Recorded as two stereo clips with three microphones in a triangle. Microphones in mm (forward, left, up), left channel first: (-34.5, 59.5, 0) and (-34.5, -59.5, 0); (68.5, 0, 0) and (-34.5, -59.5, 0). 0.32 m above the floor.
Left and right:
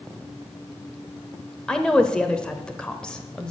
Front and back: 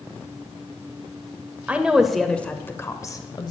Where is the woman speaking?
160° left, 0.9 m; by 3.5 s 10° left, 1.1 m.